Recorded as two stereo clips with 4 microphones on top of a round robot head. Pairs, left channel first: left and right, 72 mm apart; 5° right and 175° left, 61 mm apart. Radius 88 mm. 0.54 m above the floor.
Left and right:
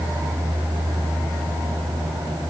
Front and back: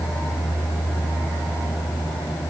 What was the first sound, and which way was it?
Only background noise.